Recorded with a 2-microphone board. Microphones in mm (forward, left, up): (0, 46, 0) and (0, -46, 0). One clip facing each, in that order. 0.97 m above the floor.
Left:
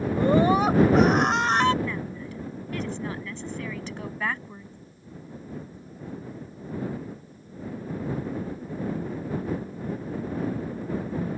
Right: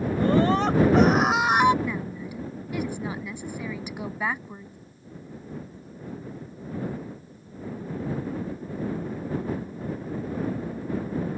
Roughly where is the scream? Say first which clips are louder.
Left 1 dB; centre.